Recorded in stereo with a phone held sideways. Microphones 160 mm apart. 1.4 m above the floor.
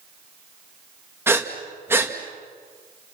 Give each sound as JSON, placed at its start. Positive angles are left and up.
{"t": 1.3, "sound": "breathing", "side_deg": -15, "distance_m": 1.8}